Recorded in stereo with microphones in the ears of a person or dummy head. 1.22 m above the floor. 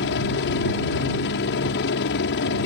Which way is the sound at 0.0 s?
60° left (ahead or behind).